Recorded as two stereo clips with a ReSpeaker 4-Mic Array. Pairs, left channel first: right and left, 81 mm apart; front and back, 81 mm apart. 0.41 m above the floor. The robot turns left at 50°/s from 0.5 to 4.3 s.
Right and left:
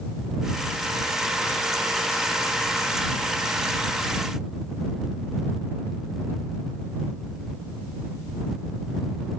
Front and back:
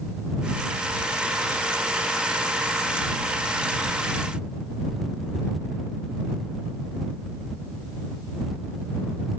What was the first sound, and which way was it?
Only background noise.